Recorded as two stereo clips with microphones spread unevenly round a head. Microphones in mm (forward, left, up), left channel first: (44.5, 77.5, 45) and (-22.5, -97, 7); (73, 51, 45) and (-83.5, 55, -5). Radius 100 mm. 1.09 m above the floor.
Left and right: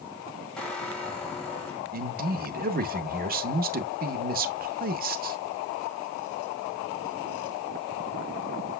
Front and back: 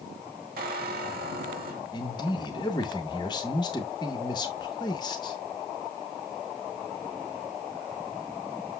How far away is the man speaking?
About 0.8 m.